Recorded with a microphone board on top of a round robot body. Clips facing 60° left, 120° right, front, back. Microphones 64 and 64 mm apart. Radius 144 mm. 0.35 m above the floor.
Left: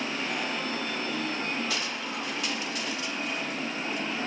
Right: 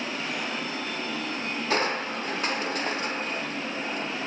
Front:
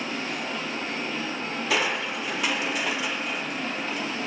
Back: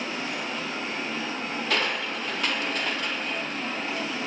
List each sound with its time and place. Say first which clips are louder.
1.7 s crushing: right 6 dB, front 2 dB; 80° right, 1.0 m